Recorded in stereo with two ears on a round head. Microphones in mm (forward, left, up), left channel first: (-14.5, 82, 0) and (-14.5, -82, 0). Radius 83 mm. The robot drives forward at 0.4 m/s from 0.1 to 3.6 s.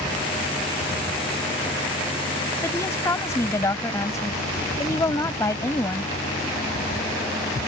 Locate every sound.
2.6 s a woman speaking: 15° left (ahead or behind)